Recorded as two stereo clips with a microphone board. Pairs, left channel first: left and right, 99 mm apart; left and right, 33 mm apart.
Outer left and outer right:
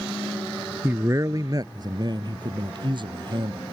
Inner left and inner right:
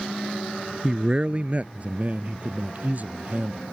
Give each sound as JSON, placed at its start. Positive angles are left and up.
{"t": 0.8, "sound": "a man speaking", "side_deg": -25}